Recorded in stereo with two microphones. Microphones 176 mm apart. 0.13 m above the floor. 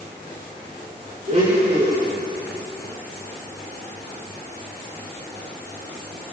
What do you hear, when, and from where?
1.3 s a blender: 35° right (ahead or behind), 10 m